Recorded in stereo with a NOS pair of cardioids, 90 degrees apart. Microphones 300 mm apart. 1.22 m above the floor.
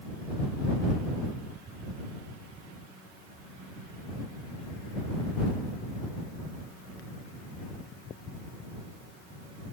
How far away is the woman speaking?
I don't hear a woman speaking.